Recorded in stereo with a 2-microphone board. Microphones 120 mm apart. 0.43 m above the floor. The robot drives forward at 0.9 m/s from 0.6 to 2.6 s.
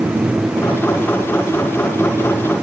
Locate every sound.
Only background noise.